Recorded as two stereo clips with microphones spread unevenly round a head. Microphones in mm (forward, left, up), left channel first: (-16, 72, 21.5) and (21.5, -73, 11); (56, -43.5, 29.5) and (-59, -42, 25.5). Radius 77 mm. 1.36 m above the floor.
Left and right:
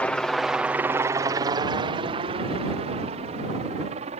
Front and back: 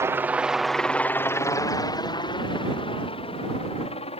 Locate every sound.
0.0 s a helicopter: straight behind; by 4.2 s 30° right